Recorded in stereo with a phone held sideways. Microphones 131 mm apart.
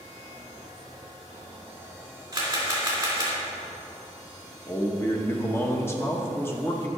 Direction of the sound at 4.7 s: 20° left (ahead or behind).